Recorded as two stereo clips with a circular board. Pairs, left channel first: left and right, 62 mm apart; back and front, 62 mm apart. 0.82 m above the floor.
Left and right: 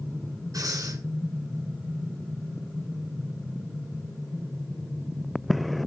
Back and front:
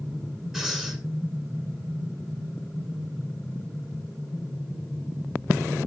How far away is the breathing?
About 6.5 m.